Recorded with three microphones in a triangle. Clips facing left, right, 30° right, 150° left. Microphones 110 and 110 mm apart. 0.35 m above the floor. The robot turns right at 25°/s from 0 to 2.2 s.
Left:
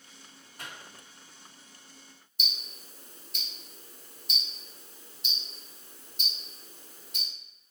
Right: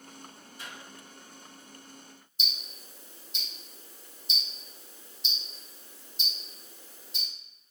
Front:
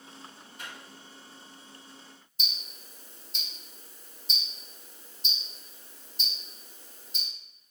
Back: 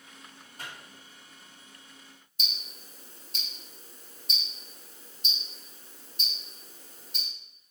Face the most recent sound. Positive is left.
turn(degrees=120)